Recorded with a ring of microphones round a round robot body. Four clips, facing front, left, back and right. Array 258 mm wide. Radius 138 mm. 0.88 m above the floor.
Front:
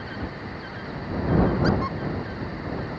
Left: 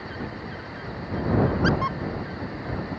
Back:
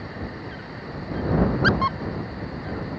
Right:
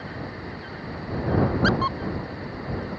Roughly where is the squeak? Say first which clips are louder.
Right 1 dB, back 2 dB; behind.